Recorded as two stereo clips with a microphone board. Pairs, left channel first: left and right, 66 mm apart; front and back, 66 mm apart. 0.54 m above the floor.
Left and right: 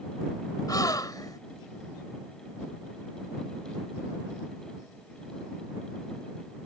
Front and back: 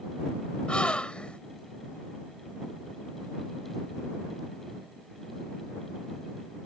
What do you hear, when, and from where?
0.7 s a gasp: 75° left